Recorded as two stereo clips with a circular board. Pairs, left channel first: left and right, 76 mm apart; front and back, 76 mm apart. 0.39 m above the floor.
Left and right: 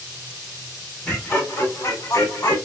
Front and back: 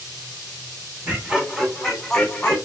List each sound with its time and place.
1.1 s laughter: 130° left, 1.0 m; by 2.6 s 70° left, 1.4 m